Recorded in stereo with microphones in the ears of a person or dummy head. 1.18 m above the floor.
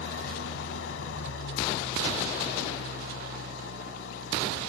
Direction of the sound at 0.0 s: 85° left.